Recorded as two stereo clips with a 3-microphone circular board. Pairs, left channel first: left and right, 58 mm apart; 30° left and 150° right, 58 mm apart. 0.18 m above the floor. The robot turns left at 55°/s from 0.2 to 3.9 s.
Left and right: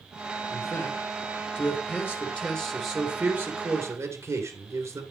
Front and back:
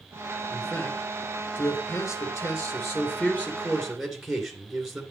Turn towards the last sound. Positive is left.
turn(degrees=-65)